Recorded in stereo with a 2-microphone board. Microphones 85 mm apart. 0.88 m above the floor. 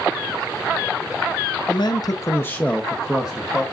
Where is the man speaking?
60° left (ahead or behind), 0.6 m; by 3.6 s 15° right (ahead or behind), 1.1 m.